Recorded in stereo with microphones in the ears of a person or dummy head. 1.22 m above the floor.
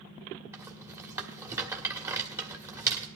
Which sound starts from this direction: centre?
A rattle, at 0.5 s.